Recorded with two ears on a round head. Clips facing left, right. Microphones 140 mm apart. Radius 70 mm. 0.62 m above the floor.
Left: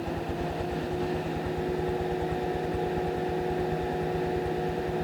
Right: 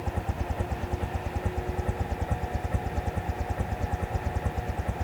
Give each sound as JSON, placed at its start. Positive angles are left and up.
{"t": 0.0, "sound": "a helicopter", "side_deg": -45}